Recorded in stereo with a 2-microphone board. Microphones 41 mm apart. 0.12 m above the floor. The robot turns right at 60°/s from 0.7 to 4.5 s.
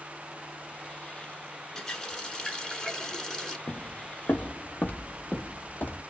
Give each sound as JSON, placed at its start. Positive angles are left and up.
{"t": 1.8, "sound": "a running tap", "side_deg": 10, "distance_m": 0.9}
{"t": 3.7, "sound": "footsteps", "side_deg": 60, "distance_m": 0.5}